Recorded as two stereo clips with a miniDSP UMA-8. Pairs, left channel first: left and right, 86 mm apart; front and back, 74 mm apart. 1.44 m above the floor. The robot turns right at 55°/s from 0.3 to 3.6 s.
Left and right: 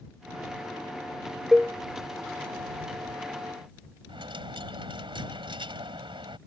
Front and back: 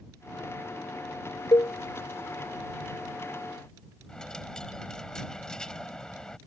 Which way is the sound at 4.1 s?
80° right.